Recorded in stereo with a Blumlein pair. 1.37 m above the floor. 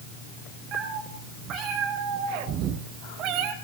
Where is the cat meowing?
35° right, 7.5 m; by 3.5 s 40° right, 3 m.